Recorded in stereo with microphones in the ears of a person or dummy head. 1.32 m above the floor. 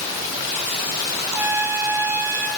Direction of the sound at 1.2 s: 10° right (ahead or behind).